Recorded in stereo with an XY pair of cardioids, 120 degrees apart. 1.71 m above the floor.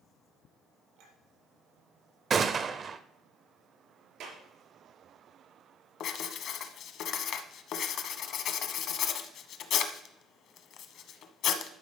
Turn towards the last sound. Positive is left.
turn(degrees=65)